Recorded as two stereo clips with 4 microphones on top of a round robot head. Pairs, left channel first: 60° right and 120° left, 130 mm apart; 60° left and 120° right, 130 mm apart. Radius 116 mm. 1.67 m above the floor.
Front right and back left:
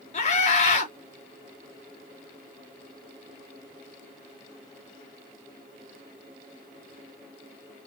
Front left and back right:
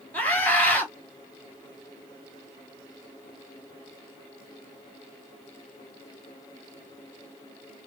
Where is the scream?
20° right, 4 m.